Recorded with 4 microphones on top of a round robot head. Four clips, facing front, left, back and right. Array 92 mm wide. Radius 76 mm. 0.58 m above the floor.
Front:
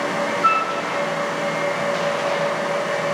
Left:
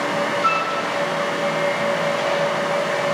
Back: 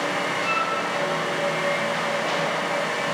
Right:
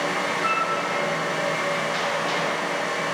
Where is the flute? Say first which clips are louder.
Left 3 dB, front 10 dB; 20° left, 2.5 m.